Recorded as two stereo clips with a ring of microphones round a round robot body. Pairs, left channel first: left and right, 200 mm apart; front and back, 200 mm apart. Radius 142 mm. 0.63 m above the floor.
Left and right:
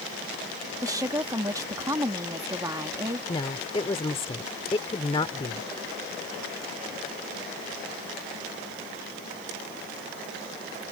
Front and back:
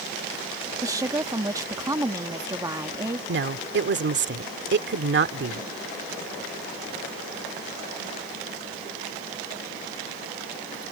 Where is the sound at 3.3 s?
160° left.